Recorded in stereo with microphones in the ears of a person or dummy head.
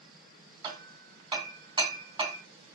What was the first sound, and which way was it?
Hammering, 30° right (ahead or behind).